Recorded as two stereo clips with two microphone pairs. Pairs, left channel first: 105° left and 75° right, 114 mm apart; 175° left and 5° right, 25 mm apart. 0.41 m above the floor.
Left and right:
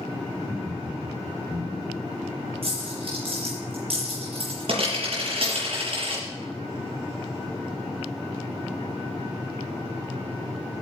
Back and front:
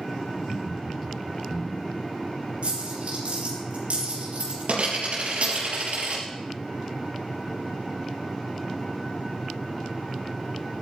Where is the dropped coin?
35° right, 5 m.